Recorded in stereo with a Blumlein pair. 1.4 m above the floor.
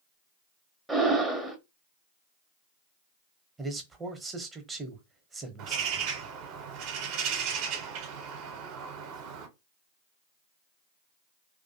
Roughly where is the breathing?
Ahead.